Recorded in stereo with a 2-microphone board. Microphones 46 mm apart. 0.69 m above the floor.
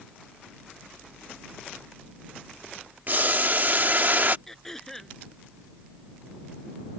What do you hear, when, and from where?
3.1 s boiling: 45° right (ahead or behind)
4.5 s throat clearing: 10° left (ahead or behind)